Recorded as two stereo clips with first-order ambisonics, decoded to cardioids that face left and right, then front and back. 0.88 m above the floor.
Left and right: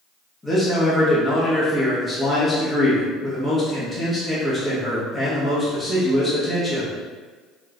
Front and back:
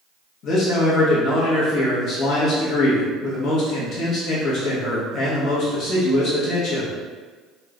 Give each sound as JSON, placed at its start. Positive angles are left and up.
{"t": 0.4, "sound": "a man speaking", "azimuth_deg": 20, "distance_m": 0.8}